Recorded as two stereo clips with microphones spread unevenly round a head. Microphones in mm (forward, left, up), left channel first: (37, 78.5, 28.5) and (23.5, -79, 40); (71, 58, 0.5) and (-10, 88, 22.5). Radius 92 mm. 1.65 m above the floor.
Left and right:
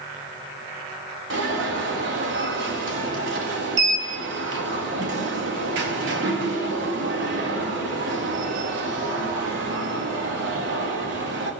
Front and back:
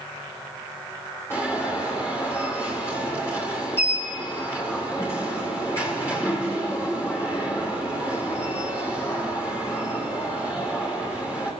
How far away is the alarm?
About 4 m.